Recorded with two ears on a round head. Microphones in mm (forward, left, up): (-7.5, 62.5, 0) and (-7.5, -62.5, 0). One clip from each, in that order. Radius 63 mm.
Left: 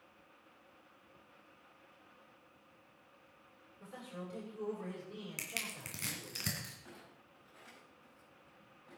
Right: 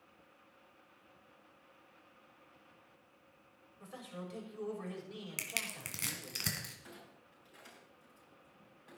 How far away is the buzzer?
No buzzer in this recording.